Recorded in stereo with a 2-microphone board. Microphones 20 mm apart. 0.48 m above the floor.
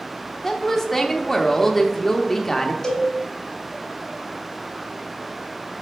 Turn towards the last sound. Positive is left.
turn(degrees=25)  # may be behind; listen again after turning